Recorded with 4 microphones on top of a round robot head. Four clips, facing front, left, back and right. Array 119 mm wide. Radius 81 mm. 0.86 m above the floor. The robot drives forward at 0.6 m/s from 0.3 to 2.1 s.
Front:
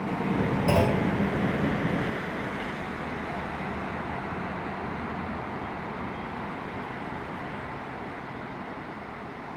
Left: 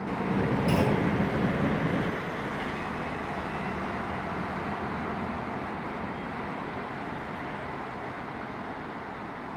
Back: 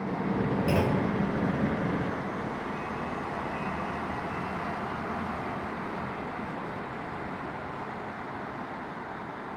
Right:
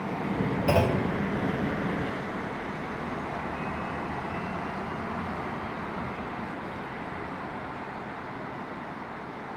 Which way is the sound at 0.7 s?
70° right.